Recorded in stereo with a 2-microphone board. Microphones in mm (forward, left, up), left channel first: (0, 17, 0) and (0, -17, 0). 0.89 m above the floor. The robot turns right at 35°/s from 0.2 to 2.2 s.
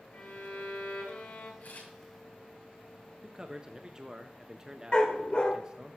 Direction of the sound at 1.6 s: 70° left (ahead or behind).